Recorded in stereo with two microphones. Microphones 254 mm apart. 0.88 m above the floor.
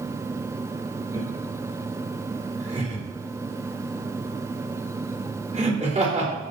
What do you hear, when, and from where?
1.1 s laughter: 30° right (ahead or behind), 3.5 m